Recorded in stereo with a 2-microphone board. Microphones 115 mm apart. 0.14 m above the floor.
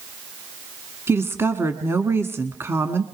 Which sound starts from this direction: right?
A woman speaking, at 1.1 s.